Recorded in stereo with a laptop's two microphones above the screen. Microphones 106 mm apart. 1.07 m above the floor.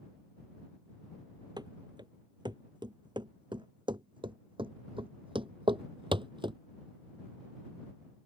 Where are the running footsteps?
40° right (ahead or behind); by 6.6 s 50° right (ahead or behind).